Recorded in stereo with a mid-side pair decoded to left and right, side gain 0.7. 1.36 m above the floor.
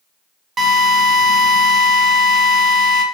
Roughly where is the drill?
Ahead right.